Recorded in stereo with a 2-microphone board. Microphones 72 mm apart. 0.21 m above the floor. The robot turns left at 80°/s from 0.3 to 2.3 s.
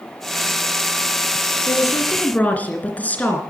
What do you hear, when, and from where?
1.7 s a woman speaking: 75° left, 2.5 m; by 3.4 s 25° left, 2.5 m